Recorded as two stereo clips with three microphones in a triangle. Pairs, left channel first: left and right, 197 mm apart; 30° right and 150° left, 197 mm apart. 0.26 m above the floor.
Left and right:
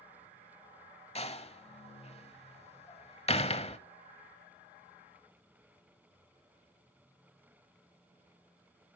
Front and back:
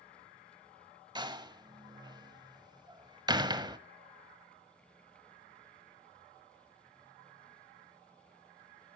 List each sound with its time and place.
1.1 s a door slam: 105° left, 0.9 m